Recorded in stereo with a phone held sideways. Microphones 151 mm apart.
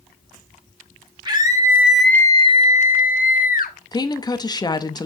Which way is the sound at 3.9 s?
25° left (ahead or behind).